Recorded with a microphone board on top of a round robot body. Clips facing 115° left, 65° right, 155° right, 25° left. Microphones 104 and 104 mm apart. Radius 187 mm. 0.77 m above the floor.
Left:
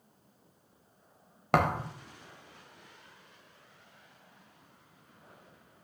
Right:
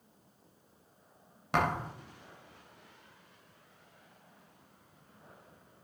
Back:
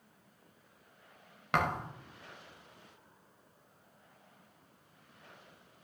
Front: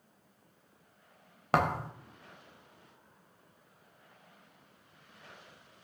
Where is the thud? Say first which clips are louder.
Left 3 dB, front 3 dB; 80° left, 0.7 m.